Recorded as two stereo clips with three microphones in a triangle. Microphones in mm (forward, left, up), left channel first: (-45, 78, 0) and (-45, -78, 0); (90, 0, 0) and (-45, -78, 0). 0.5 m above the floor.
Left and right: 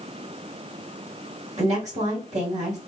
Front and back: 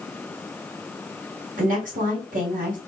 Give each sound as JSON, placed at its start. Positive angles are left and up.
{"t": 1.6, "sound": "a woman speaking", "azimuth_deg": -130, "distance_m": 2.5}